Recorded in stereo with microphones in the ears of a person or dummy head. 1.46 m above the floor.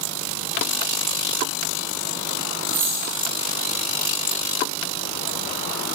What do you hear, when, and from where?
2.7 s a dropped coin: 20° right (ahead or behind), 7 m